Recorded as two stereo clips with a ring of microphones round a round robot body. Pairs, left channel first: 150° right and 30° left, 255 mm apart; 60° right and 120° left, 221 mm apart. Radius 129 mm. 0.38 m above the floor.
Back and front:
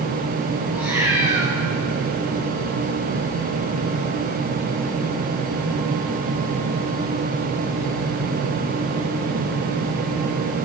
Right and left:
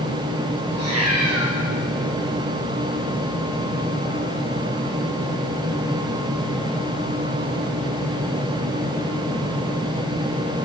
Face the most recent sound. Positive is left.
turn(degrees=115)